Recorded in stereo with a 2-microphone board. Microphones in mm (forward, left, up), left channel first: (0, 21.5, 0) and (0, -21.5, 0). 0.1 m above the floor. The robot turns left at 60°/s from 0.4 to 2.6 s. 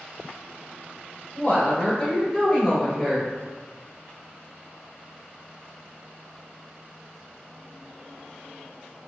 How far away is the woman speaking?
About 1.5 m.